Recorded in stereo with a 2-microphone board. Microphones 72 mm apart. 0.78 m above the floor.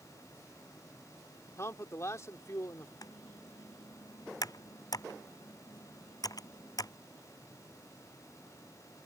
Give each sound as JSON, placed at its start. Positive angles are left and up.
{"t": 1.6, "sound": "a man speaking", "side_deg": 40}
{"t": 3.0, "sound": "typing on a keyboard", "side_deg": 55}